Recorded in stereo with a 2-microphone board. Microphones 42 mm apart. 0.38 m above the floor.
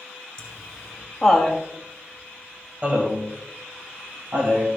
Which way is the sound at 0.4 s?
20° left (ahead or behind).